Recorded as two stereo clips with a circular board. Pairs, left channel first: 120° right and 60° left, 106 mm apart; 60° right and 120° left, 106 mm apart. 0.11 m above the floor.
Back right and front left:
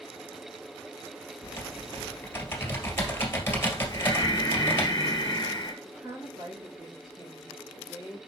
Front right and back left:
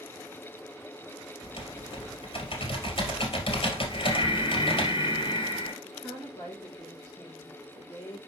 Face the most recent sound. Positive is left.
turn(degrees=10)